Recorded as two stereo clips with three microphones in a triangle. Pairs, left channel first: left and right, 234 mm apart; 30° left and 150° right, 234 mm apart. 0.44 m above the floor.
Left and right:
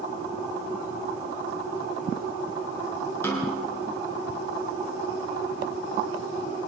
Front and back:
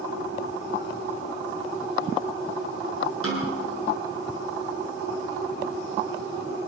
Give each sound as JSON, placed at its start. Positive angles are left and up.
{"t": 3.2, "sound": "a snare drum", "azimuth_deg": 10, "distance_m": 8.0}